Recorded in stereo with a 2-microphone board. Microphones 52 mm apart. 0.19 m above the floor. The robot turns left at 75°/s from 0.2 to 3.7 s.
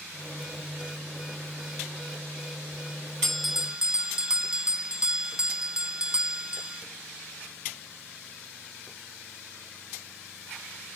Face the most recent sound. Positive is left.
turn(degrees=-20)